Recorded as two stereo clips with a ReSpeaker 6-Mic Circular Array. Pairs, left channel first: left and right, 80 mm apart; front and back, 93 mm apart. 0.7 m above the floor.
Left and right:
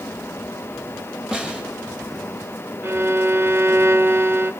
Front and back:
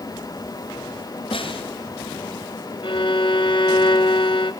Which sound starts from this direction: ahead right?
A violin, at 2.8 s.